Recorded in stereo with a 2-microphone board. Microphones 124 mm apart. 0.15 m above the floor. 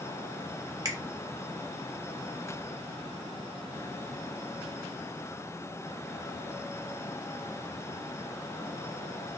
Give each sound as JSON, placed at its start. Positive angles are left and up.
{"t": 0.8, "sound": "a finger snap", "side_deg": -35, "distance_m": 1.0}